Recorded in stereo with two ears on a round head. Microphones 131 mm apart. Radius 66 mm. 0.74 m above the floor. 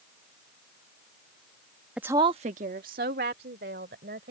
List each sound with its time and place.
2.0 s a woman speaking: 5° right (ahead or behind); by 4.3 s 75° right (ahead or behind)